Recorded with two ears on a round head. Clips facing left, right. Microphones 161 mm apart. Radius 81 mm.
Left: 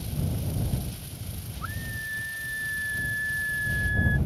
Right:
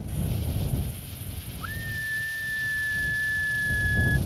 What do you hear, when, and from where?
1.6 s a scream: 25° right (ahead or behind); by 4.2 s 35° right (ahead or behind)